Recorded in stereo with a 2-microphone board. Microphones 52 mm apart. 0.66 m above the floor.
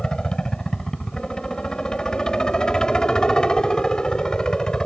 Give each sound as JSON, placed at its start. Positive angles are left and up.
{"t": 0.0, "sound": "a helicopter", "side_deg": 15}